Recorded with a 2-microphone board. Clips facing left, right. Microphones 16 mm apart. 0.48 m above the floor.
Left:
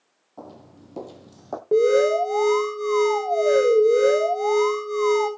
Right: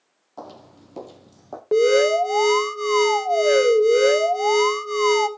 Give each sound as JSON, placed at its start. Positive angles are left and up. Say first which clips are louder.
{"t": 0.4, "sound": "footsteps", "louder": "right 3 dB", "side_deg": -50, "distance_m": 1.0}
{"t": 1.7, "sound": "an alarm", "louder": "right 1 dB", "side_deg": -30, "distance_m": 1.8}